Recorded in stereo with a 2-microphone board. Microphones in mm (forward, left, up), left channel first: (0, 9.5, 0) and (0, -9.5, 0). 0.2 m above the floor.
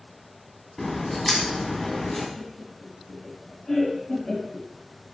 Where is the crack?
30° left (ahead or behind), 1.9 m.